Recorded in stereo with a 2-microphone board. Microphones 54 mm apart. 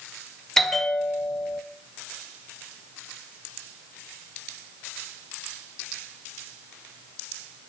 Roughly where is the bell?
Centre.